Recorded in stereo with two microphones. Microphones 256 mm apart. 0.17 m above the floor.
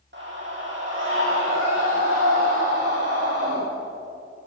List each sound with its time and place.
0.1 s a scream: 45° right (ahead or behind), 8.5 m; by 3.6 s 65° right (ahead or behind), 12.5 m